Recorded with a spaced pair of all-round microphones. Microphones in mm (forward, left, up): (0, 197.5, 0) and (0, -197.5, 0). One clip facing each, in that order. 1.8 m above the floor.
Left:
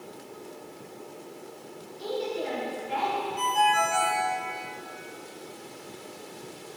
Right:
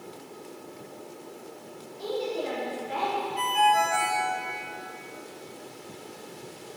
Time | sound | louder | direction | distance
2.0 | a woman speaking | right 1 dB | 65° right (ahead or behind) | 5.5 m
3.4 | a ringtone | right 1 dB | 70° right (ahead or behind) | 2.5 m